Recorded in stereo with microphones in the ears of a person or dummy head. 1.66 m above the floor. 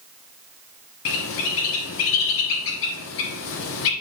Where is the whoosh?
I don't hear a whoosh.